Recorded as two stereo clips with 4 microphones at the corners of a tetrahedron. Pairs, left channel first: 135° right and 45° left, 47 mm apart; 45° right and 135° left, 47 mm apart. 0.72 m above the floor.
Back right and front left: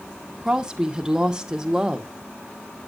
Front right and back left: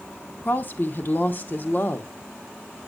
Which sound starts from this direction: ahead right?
A woman speaking, at 0.5 s.